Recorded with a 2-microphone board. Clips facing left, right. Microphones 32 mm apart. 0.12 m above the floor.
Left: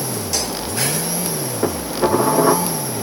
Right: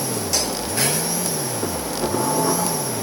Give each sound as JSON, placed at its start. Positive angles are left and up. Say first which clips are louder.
{"t": 1.6, "sound": "dishes clattering", "louder": "left 8 dB", "side_deg": 30, "distance_m": 5.5}